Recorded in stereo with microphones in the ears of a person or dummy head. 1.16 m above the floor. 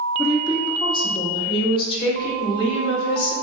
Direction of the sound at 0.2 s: 15° left (ahead or behind).